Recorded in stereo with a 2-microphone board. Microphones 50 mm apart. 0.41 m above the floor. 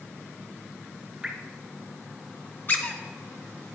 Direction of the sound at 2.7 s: 40° left (ahead or behind).